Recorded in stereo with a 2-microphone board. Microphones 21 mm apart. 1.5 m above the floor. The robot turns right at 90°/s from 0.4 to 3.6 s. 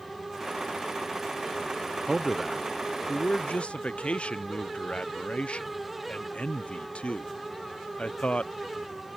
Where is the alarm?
No alarm in this recording.